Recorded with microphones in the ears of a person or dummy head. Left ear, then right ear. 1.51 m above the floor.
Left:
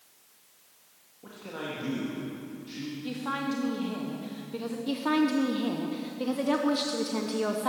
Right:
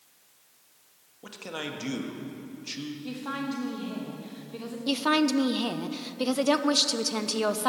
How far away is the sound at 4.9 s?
About 0.6 m.